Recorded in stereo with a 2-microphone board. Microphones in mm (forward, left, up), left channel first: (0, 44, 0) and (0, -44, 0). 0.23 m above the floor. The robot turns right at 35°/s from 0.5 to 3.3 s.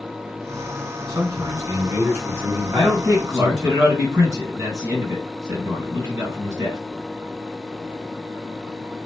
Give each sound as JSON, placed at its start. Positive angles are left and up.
{"t": 1.1, "sound": "a man speaking", "azimuth_deg": -70, "distance_m": 2.0}
{"t": 2.7, "sound": "a man speaking", "side_deg": -45, "distance_m": 1.7}